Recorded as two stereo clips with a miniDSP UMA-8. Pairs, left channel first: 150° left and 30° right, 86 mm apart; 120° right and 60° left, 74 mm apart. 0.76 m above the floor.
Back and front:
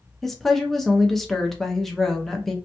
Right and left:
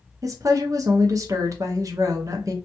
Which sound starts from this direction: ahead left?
A woman speaking, at 0.2 s.